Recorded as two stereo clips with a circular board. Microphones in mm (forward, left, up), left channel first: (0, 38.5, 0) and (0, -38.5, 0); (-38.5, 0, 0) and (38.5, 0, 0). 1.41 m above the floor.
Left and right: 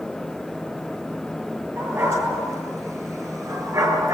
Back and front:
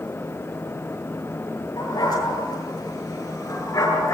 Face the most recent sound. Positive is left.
turn(degrees=-130)